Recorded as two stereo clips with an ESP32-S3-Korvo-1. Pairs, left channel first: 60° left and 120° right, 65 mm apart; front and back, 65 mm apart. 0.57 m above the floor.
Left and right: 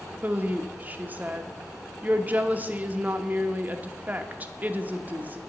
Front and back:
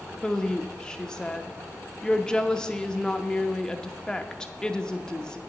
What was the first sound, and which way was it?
A woman speaking, 75° right.